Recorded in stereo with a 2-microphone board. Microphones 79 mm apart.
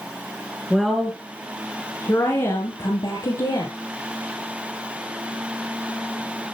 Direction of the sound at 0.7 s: 5° right (ahead or behind).